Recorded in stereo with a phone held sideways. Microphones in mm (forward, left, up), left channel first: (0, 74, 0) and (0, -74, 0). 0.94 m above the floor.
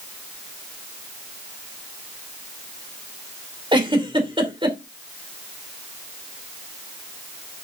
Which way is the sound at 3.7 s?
30° right (ahead or behind).